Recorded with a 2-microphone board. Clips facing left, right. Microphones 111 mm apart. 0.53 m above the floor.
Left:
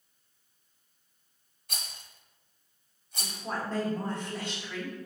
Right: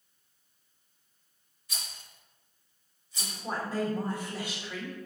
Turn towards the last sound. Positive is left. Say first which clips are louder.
# even
turn(degrees=-10)  # may be behind; listen again after turning